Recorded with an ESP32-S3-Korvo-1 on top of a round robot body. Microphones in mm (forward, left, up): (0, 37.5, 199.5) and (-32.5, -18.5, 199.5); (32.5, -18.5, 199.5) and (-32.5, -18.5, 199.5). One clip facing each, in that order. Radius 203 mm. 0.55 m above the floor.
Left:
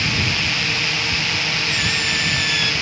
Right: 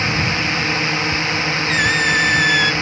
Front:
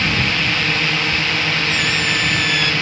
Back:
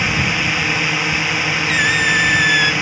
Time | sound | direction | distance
0.0 | a drone | 115° right | ?
1.7 | a squeak | 150° right | ?